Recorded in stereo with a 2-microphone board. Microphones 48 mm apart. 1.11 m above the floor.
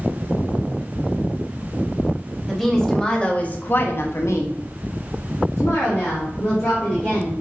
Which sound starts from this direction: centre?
A woman speaking, at 2.5 s.